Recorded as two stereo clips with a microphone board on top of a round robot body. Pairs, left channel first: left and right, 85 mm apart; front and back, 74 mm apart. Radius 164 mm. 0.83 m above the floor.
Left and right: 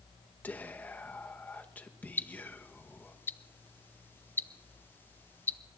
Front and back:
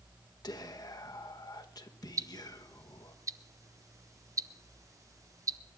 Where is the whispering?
20° left, 1.3 m.